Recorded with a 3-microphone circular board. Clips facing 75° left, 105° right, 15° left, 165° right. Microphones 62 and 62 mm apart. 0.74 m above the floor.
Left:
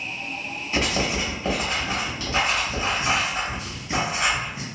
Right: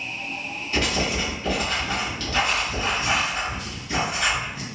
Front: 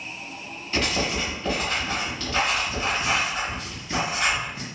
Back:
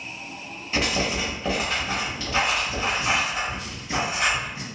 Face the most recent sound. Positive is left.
turn(degrees=135)